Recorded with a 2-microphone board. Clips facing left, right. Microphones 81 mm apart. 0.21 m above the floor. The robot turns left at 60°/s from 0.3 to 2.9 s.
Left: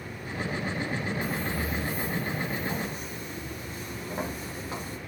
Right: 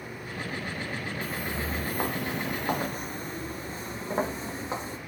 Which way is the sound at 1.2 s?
10° left (ahead or behind).